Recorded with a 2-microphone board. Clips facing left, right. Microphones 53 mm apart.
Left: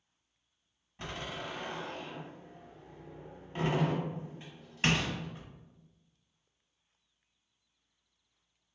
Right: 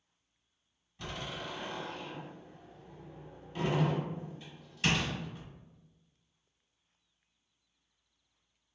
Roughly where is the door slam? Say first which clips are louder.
Left 1 dB; left.